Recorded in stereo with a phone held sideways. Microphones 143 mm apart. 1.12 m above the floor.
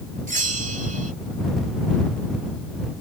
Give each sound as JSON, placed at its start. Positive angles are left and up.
{"t": 0.3, "sound": "a bell", "side_deg": -60}